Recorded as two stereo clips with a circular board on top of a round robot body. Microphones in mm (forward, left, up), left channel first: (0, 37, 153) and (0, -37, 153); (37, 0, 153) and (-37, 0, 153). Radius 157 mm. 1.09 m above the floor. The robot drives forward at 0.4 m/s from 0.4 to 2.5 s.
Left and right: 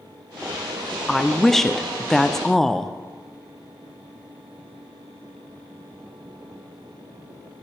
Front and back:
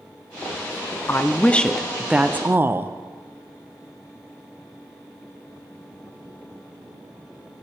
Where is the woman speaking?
5° left, 0.7 m; by 3.0 s 170° left, 0.7 m.